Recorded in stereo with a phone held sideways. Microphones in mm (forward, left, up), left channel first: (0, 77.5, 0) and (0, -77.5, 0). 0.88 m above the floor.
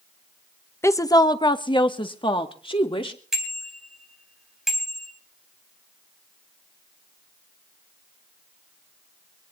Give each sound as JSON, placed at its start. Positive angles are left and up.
{"t": 0.8, "sound": "a woman speaking", "side_deg": 15, "distance_m": 0.7}
{"t": 3.3, "sound": "a bicycle bell", "side_deg": -5, "distance_m": 4.0}